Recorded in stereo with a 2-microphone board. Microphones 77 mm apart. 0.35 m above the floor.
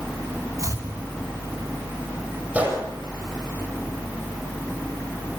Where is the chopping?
40° right (ahead or behind), 2.5 m.